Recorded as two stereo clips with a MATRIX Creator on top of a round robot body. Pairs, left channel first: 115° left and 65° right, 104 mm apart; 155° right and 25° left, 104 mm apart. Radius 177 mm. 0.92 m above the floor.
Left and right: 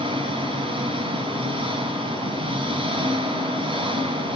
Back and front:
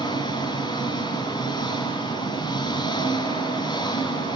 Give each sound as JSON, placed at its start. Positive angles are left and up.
{"t": 0.0, "sound": "an engine running", "azimuth_deg": -105, "distance_m": 3.5}